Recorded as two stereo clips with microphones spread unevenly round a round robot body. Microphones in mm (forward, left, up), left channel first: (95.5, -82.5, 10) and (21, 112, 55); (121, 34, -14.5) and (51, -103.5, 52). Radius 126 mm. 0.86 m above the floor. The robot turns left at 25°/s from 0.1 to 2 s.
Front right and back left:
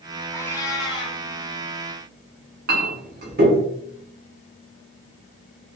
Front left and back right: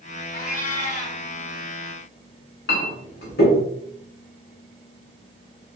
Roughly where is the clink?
Left.